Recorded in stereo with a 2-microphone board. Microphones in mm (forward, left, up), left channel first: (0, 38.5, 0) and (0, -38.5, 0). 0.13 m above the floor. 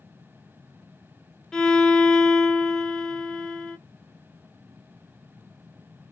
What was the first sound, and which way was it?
A violin, 10° left (ahead or behind).